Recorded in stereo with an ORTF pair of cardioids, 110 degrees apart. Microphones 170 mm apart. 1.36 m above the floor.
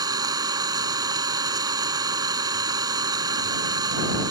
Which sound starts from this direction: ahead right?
An engine running, at 0.0 s.